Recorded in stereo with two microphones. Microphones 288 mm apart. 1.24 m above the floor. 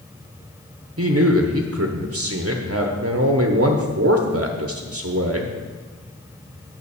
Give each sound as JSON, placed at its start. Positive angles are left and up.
{"t": 1.0, "sound": "a man speaking", "side_deg": -55, "distance_m": 0.9}